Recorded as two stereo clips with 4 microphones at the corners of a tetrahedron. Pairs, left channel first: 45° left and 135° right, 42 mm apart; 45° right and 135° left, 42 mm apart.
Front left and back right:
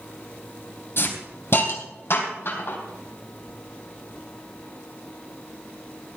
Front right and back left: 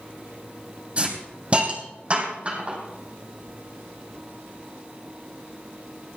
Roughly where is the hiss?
Left.